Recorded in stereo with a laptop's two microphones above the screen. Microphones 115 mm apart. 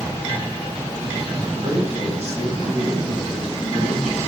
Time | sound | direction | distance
1.5 | a man speaking | 55° right (ahead or behind) | 7.5 m